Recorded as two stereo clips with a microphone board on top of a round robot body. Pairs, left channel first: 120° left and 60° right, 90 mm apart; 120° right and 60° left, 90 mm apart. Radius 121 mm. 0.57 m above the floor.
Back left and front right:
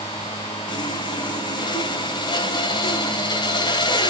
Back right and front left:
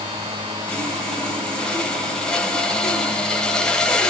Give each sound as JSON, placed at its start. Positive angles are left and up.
{"t": 0.7, "sound": "sawing", "azimuth_deg": 160, "distance_m": 1.8}